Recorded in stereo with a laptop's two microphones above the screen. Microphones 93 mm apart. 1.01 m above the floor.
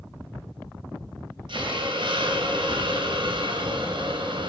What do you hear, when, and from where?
1.5 s a hiss: 65° right (ahead or behind), 3 m